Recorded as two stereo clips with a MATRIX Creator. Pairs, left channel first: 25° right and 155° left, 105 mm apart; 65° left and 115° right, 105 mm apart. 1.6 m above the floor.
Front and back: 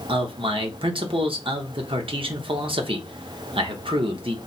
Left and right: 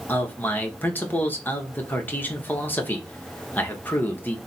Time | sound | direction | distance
0.1 | a man speaking | 135° left | 0.8 m